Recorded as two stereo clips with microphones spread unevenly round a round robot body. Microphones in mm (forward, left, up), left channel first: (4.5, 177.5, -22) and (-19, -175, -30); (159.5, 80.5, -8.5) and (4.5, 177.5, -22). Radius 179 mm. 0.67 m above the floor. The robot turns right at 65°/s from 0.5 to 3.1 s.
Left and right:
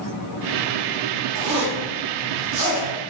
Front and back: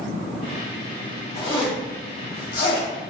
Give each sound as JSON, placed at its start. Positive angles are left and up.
{"t": 1.4, "sound": "a zipper", "azimuth_deg": -110, "distance_m": 0.8}